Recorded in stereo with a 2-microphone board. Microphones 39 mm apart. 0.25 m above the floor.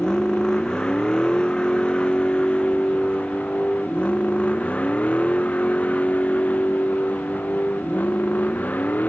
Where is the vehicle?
20° left (ahead or behind); by 9.1 s 50° left (ahead or behind).